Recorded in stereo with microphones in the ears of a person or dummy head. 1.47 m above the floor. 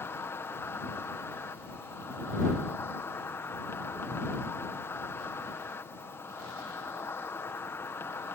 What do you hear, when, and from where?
0.0 s an insect: 5° left (ahead or behind)